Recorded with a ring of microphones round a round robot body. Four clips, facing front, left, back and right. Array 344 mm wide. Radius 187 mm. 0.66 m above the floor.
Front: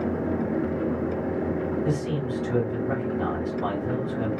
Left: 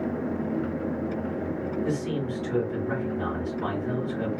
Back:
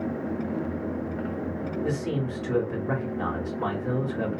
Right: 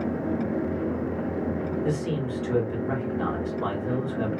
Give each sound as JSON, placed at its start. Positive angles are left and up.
{"t": 1.8, "sound": "a man speaking", "azimuth_deg": -150, "distance_m": 1.9}